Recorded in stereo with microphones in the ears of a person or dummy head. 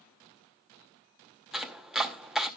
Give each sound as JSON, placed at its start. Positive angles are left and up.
{"t": 1.5, "sound": "chopping", "side_deg": 0, "distance_m": 0.8}